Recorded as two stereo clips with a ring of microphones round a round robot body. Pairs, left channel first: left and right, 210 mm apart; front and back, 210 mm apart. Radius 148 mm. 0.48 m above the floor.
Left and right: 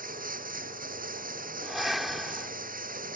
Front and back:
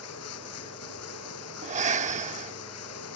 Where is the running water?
40° right.